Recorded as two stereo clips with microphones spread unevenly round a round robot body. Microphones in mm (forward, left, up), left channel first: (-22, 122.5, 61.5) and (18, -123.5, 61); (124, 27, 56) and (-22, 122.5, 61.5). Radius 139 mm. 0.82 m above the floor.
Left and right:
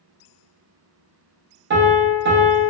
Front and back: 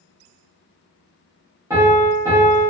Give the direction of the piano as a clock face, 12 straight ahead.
4 o'clock.